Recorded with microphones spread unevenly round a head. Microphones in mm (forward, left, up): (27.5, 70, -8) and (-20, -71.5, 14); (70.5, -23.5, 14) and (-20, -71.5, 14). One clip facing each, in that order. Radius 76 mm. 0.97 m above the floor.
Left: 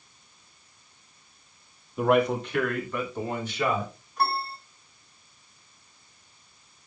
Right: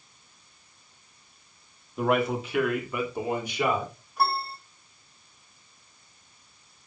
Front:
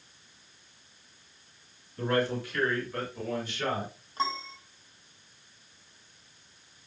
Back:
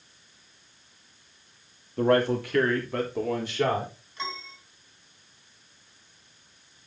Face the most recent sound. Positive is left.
turn(degrees=-25)